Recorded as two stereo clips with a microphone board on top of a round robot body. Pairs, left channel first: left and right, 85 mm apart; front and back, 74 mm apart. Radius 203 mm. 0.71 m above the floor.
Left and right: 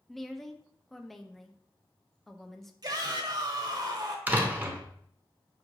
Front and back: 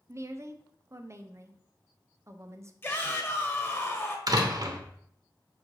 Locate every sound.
0.1 s a woman speaking: 175° left, 0.7 m
2.8 s a shout: 55° right, 1.3 m
4.3 s a door slam: 160° right, 0.9 m